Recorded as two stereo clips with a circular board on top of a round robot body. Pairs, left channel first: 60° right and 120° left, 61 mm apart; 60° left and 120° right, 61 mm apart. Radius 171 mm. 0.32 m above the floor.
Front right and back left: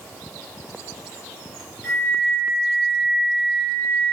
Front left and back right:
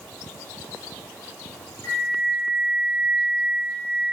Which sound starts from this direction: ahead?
A flute, at 1.8 s.